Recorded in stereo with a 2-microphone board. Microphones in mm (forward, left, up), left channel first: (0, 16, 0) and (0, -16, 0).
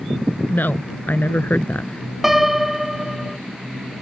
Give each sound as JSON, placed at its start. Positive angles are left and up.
{"t": 0.5, "sound": "a woman speaking", "side_deg": 70}
{"t": 2.2, "sound": "a piano", "side_deg": -5}